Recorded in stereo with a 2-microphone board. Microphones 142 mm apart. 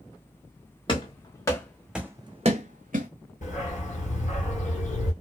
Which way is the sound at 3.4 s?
60° left (ahead or behind).